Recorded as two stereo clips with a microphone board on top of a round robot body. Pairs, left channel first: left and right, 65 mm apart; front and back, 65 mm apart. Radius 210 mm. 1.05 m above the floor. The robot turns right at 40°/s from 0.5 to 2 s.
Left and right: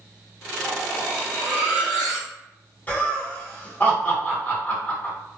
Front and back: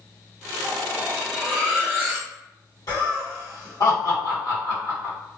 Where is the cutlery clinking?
30° left, 0.8 m; by 2.3 s 85° left, 0.8 m.